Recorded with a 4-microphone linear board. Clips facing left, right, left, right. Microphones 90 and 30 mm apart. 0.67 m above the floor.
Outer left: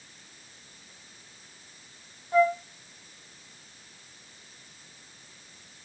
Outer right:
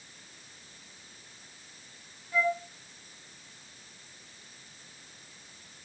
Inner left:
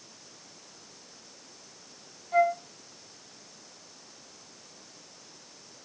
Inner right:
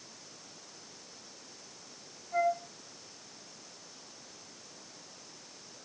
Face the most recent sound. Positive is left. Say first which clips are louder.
# outer left 7 dB, inner left 5 dB
turn(degrees=55)  # may be behind; listen again after turning